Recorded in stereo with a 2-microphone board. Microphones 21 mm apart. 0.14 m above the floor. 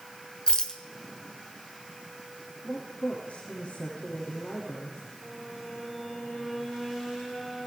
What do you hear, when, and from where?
0.5 s a rattle: 40° left (ahead or behind), 1.7 m
2.6 s a woman speaking: 80° left, 8 m
5.2 s a violin: 5° left (ahead or behind), 8 m